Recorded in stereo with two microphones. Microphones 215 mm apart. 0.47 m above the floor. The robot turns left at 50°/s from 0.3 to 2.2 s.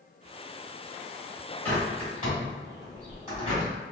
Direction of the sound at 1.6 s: 10° left (ahead or behind).